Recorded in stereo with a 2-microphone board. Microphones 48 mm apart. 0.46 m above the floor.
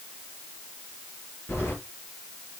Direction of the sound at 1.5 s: 60° left (ahead or behind).